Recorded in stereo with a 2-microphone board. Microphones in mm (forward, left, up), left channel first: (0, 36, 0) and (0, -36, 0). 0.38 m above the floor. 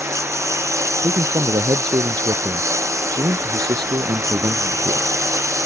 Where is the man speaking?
85° right.